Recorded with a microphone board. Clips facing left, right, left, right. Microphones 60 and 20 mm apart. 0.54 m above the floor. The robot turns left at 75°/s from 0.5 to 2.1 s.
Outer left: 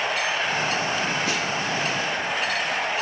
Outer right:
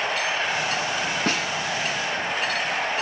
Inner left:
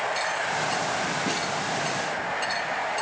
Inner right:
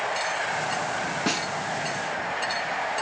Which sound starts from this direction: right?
A snare drum, at 1.3 s.